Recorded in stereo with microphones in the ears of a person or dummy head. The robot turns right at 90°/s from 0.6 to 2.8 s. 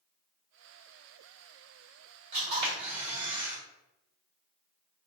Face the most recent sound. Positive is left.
turn(degrees=-25)